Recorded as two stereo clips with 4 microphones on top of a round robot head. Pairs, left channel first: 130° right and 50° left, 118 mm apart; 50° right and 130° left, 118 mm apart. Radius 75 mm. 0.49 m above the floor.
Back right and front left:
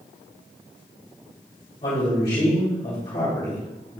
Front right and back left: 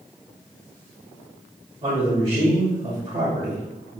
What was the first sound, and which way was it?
A man speaking, 170° right.